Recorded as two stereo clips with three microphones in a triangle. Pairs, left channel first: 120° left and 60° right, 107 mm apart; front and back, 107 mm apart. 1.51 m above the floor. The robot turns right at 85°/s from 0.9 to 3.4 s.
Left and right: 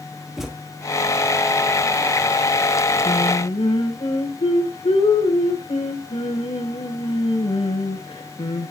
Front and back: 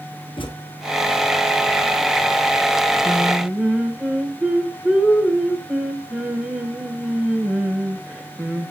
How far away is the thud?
About 1.3 m.